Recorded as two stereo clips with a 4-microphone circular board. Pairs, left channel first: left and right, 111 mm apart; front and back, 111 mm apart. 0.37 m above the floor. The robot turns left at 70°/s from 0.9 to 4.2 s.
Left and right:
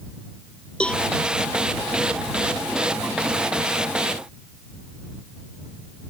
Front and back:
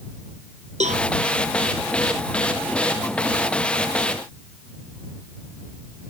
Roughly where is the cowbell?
Behind.